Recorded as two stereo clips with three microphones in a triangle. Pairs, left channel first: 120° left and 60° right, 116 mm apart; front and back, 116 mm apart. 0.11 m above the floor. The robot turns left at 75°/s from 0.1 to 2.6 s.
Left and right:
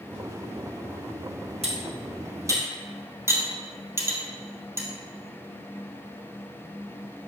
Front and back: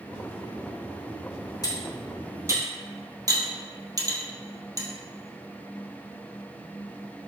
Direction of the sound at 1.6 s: 50° right.